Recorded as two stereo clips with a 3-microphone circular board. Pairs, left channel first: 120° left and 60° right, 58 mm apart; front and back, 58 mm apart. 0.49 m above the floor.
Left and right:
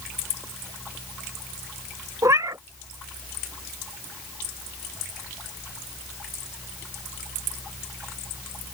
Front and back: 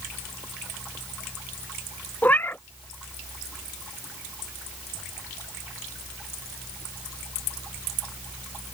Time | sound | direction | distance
2.2 | a cat meowing | 55° right | ?